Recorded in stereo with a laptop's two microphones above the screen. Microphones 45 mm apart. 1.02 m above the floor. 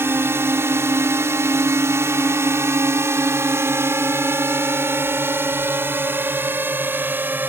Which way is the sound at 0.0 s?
60° right (ahead or behind).